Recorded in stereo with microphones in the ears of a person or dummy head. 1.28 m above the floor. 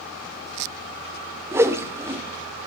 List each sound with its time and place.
1.5 s a whoosh: 15° right (ahead or behind), 0.6 m